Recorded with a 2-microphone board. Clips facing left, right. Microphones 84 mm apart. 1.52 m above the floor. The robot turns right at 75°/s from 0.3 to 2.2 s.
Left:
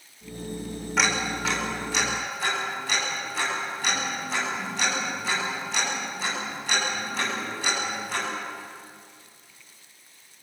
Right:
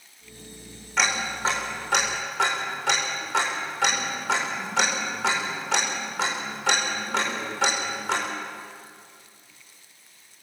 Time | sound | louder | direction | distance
1.0 | ticking | even | 5° left (ahead or behind) | 6 m